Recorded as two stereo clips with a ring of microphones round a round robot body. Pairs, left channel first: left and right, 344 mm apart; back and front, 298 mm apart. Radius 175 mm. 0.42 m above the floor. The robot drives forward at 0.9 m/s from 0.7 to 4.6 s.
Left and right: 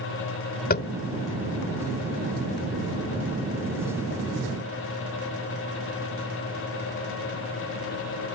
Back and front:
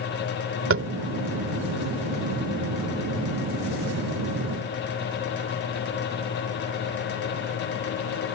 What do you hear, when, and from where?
0.7 s tapping: 30° left; by 0.9 s 35° left